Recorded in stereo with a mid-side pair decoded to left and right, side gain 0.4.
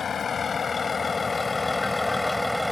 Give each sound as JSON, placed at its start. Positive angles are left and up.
{"t": 0.0, "sound": "a vehicle", "azimuth_deg": 50}